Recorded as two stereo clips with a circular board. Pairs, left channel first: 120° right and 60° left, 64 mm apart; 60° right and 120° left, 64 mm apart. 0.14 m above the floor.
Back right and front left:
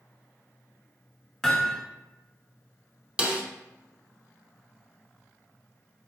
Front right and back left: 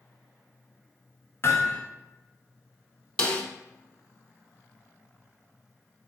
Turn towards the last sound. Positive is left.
turn(degrees=0)